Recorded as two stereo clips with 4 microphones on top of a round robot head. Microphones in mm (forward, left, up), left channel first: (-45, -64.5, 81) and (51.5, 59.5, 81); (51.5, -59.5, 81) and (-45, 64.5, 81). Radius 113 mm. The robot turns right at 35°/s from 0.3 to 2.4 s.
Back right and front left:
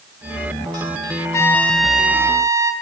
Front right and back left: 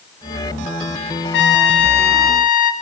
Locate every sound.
1.3 s a trumpet: 55° right, 1.0 m; by 2.7 s 15° right, 1.0 m